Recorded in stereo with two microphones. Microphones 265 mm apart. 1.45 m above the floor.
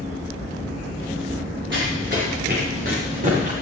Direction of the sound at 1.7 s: 50° right (ahead or behind).